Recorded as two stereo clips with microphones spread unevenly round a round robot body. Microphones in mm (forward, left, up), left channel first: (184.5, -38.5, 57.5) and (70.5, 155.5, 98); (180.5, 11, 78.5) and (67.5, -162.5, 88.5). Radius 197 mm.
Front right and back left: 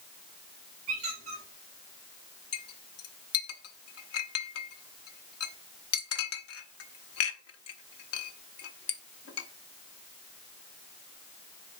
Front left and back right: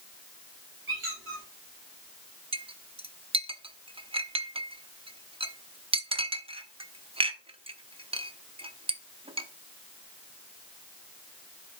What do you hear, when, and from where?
0.9 s a squeak: 175° right, 4 m
2.5 s a clink: 55° right, 0.9 m